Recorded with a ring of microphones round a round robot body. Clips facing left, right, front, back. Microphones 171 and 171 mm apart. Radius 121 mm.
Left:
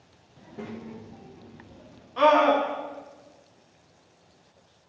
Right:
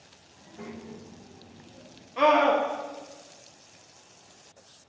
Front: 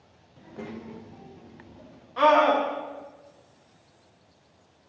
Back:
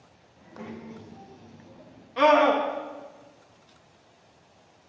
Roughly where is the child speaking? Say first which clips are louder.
Left 3 dB, front 2 dB; ahead left.